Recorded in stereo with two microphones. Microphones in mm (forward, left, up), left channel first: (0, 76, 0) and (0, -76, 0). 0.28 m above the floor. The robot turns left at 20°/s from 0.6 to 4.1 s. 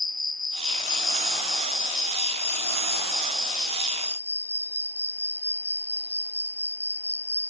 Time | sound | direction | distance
0.0 | an insect | 85° left | 1.7 m